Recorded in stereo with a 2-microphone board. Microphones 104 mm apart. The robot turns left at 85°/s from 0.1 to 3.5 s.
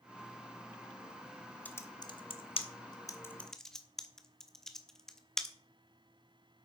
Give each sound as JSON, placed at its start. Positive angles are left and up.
{"t": 1.6, "sound": "typing on a keyboard", "side_deg": 15, "distance_m": 1.1}